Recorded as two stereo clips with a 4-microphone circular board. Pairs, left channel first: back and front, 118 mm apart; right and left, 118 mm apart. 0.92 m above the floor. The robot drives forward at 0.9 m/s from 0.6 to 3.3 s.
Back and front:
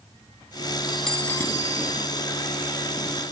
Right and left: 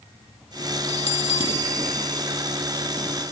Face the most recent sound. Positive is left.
turn(degrees=-150)